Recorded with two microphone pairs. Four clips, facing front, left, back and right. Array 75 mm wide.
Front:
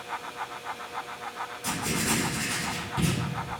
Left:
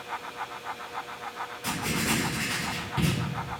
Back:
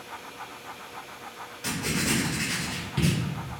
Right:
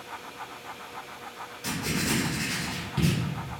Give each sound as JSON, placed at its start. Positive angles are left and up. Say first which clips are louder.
{"t": 1.6, "sound": "writing", "louder": "even, back 1 dB", "azimuth_deg": 155, "distance_m": 2.0}